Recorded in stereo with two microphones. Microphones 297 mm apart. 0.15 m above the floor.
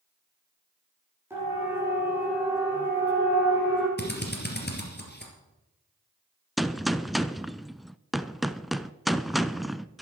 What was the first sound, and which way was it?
A siren, 10° right (ahead or behind).